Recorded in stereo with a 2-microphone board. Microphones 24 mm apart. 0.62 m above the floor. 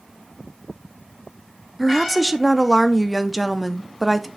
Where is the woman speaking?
5° right (ahead or behind), 0.6 m.